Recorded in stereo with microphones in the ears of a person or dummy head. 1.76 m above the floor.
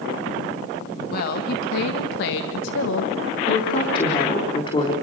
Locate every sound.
1.1 s a woman speaking: 55° left (ahead or behind), 2.5 m; by 3.1 s 80° left, 2 m
3.5 s a woman speaking: 30° left (ahead or behind), 4 m